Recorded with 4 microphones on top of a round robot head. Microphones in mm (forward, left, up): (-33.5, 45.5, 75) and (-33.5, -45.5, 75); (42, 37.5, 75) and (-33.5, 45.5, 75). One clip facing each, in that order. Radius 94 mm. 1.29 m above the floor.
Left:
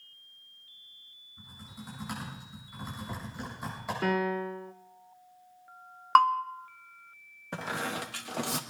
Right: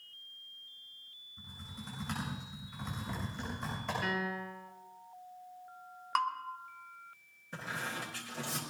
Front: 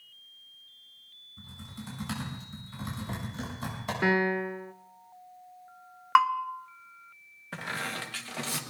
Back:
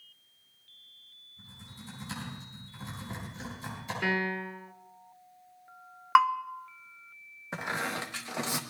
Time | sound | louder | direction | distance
1.4 | typing on a keyboard | left 1 dB, front 6 dB | 10° left | 7.5 m
4.0 | a piano | left 12 dB, front 5 dB | 55° left | 0.7 m
6.2 | a bell | left 12 dB, even | 90° left | 0.6 m
7.5 | a squeak | left 6 dB, back 2 dB | 105° left | 1.0 m